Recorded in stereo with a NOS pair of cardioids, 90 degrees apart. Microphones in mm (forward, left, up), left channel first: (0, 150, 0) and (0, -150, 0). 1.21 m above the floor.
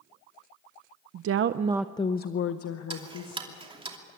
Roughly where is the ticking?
Ahead.